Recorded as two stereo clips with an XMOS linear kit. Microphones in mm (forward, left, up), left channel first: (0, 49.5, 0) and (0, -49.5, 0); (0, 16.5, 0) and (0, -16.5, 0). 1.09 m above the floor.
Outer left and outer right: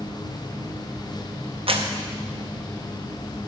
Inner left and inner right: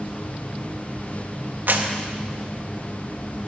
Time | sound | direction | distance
1.7 | a clap | 70° right (ahead or behind) | 0.9 m